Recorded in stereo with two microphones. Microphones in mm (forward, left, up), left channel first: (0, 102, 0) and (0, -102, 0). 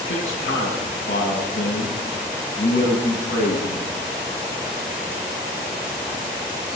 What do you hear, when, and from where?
0.1 s a man speaking: 80° left, 9 m